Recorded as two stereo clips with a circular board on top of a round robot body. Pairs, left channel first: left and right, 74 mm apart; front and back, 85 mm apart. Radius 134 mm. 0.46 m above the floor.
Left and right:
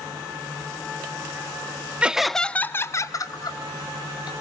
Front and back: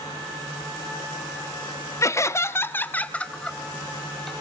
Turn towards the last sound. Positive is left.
turn(degrees=85)